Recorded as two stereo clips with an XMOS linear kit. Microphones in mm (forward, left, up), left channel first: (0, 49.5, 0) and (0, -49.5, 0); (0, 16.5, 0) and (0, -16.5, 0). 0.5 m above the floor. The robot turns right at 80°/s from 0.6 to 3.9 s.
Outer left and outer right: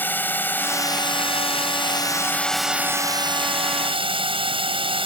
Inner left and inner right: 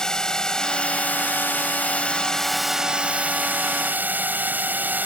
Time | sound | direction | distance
0.0 | a drone | 20° left | ?